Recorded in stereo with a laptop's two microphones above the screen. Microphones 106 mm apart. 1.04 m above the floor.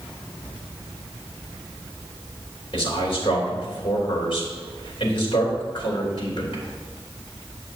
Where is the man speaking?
50° left (ahead or behind), 3.5 m.